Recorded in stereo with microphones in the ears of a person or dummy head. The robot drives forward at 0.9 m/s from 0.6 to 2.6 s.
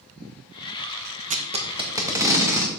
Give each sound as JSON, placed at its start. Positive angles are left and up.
{"t": 1.3, "sound": "tape being pulled", "side_deg": -40, "distance_m": 0.7}